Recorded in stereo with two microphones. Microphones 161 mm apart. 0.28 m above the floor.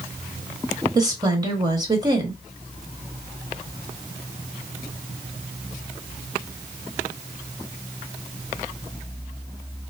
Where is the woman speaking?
25° right (ahead or behind), 1.0 m.